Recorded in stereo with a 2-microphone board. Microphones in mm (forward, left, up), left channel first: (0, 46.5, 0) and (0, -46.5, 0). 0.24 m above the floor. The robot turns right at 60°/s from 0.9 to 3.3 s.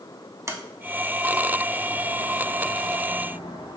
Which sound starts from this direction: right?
A sliding door, at 0.5 s.